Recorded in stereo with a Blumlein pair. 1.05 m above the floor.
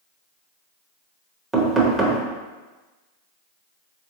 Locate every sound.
1.5 s knocking: 10° right, 0.7 m